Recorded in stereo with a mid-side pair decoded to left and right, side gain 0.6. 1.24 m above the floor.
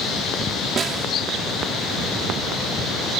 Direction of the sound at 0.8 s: 40° right.